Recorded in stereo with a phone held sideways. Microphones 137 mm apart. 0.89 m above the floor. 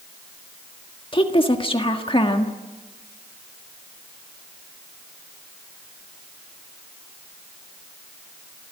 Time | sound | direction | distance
1.1 | a woman speaking | 40° left (ahead or behind) | 1.6 m